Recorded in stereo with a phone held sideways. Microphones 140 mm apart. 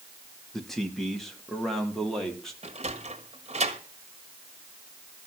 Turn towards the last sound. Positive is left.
turn(degrees=-45)  # may be behind; listen again after turning